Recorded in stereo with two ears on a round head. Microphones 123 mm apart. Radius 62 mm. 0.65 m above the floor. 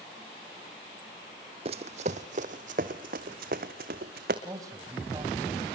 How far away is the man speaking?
About 3.5 m.